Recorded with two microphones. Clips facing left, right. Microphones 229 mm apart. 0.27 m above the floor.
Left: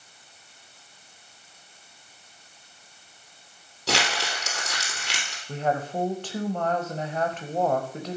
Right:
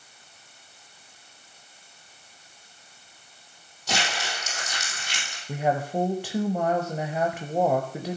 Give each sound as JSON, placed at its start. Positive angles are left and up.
{"t": 3.9, "sound": "crumpling", "side_deg": 65, "distance_m": 3.5}
{"t": 5.5, "sound": "a woman speaking", "side_deg": -10, "distance_m": 0.9}